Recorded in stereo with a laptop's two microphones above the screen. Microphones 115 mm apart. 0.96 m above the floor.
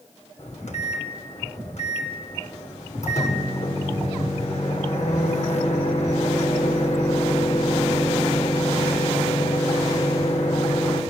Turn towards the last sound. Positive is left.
turn(degrees=80)